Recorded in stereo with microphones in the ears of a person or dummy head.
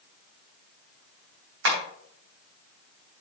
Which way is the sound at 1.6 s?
70° right (ahead or behind).